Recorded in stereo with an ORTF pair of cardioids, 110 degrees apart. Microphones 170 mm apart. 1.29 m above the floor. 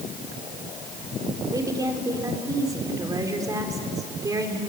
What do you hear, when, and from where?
1.5 s a woman speaking: 20° right, 4.5 m